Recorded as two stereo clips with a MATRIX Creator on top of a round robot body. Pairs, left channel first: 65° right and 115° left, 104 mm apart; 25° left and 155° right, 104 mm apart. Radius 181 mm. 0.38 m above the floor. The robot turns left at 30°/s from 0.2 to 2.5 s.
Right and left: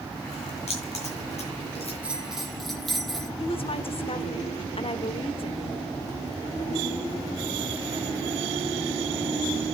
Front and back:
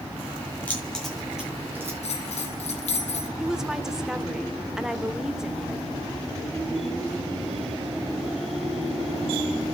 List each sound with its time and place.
0.7 s keys jangling: 55° right, 7 m; by 1.9 s 90° right, 7 m
2.0 s a bell: 35° left, 1.8 m; by 3.3 s 20° left, 1.8 m
3.4 s a woman speaking: 75° right, 1.4 m